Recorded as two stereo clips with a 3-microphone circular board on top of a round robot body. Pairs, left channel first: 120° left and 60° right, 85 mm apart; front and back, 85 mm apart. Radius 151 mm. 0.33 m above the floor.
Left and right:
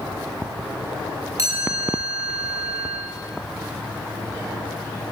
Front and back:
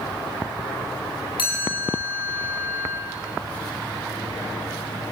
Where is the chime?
5° right, 9 m.